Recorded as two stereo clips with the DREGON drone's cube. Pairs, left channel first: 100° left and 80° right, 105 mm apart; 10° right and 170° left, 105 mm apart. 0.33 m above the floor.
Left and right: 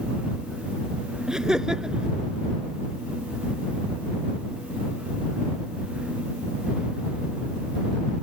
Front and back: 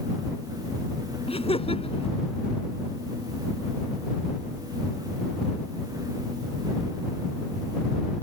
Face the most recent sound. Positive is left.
turn(degrees=5)